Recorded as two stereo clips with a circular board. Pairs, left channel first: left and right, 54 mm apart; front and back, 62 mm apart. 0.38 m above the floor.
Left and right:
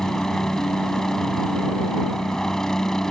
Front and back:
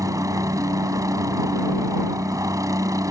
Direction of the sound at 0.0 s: 170° left.